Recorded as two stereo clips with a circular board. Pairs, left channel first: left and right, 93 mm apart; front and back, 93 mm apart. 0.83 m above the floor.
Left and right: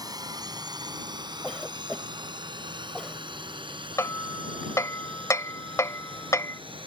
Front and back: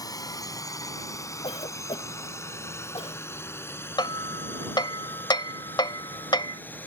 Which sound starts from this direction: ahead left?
Hammering, at 4.0 s.